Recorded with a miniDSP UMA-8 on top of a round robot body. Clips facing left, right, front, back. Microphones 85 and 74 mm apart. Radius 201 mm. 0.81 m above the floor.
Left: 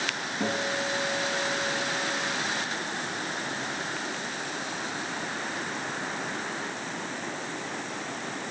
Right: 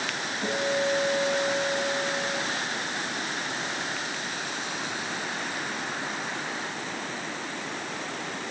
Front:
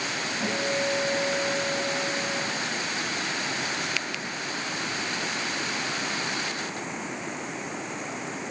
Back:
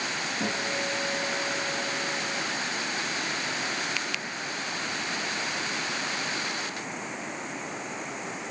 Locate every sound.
0.4 s a guitar: 120° left, 3 m